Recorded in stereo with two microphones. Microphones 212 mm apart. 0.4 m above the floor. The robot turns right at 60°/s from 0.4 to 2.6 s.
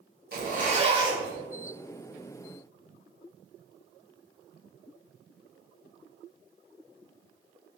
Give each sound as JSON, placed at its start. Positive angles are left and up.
{"t": 0.3, "sound": "a zipper", "azimuth_deg": -65, "distance_m": 1.1}